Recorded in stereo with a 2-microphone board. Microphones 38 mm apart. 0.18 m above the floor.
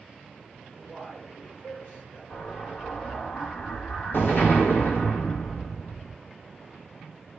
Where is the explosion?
70° left (ahead or behind), 1.4 m.